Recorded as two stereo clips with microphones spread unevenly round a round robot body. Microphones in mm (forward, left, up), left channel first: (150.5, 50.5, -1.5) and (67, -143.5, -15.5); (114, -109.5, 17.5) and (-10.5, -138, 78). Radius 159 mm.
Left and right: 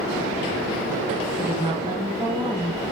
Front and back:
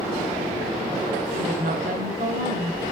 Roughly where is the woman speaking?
Behind.